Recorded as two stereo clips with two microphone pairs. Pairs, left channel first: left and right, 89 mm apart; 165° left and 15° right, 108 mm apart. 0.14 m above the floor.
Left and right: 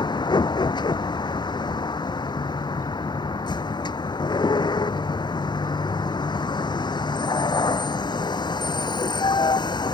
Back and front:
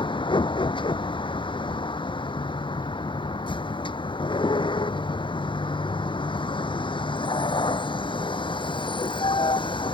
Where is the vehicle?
125° left.